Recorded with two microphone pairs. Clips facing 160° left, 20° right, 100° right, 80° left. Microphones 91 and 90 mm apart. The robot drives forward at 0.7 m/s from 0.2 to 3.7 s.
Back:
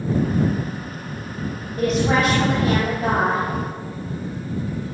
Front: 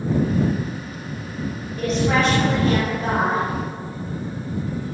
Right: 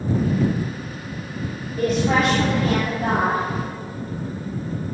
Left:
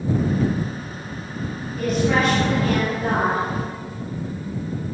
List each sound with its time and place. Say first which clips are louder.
1.8 s a woman speaking: back 1 dB, right 1 dB; 150° right, 3.5 m; by 3.5 s 155° right, 4.5 m